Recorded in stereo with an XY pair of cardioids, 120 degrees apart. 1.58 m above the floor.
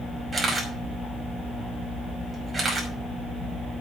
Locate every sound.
0.3 s a camera shutter: 10° right, 5.5 m